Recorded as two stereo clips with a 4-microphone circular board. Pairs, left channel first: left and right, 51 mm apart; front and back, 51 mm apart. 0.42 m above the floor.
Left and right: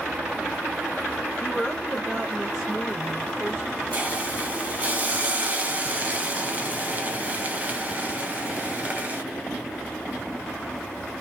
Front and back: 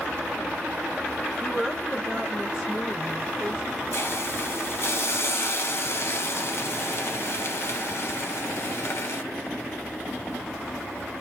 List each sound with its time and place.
1.4 s a woman speaking: 55° left, 1.2 m; by 3.6 s 115° right, 1.3 m
3.9 s a hiss: 30° right, 0.7 m